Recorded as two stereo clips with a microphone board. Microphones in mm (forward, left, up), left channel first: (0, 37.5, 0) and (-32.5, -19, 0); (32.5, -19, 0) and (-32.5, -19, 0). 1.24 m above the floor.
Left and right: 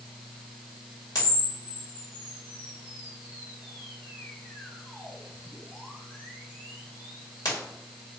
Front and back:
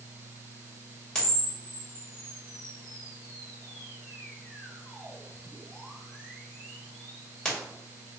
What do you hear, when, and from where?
1.1 s a camera shutter: 75° left, 2 m